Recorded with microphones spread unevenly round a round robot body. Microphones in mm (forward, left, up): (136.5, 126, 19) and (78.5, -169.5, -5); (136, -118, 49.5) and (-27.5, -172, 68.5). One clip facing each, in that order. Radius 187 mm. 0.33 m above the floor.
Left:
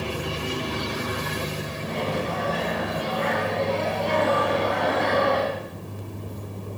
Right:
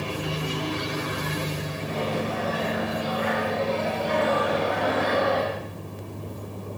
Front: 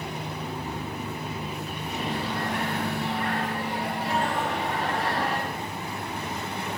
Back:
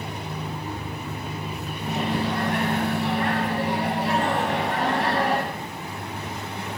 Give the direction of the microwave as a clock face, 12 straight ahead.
6 o'clock.